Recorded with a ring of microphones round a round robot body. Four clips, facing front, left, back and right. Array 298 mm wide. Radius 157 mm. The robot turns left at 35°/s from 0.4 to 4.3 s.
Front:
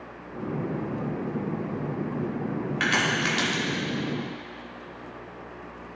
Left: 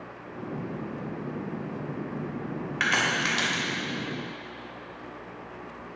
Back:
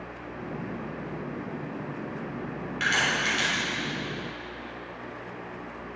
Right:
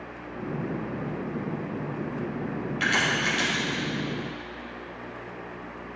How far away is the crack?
About 3 m.